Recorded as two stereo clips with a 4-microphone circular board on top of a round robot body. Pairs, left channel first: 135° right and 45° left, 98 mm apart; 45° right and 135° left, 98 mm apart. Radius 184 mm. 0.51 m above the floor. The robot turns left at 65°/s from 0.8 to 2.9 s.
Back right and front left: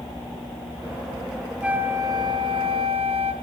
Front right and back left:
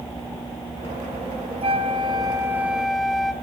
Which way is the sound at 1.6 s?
125° left.